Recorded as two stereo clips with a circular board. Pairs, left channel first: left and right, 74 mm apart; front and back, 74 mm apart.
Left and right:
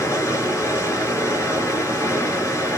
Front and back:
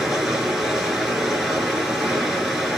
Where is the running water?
100° left, 1.6 m.